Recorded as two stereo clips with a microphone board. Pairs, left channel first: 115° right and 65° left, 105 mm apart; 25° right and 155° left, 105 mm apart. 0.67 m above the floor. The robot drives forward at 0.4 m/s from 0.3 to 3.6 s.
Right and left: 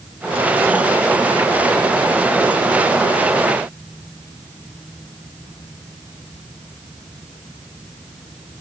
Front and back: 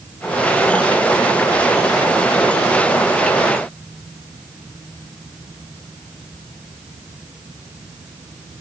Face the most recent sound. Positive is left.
No sound to turn to.